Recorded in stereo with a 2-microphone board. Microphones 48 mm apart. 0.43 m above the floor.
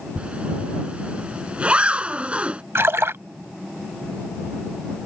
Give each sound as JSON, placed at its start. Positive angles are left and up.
{"t": 0.2, "sound": "a zipper", "side_deg": -25}
{"t": 2.8, "sound": "a splash", "side_deg": -60}